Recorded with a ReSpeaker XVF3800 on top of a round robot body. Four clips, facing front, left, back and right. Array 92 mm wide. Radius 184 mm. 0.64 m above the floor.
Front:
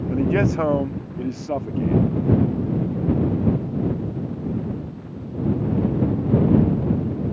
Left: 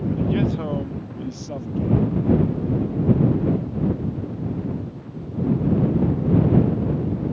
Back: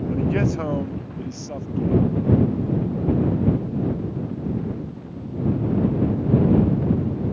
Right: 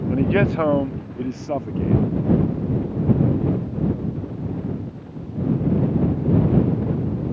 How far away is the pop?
No pop in this recording.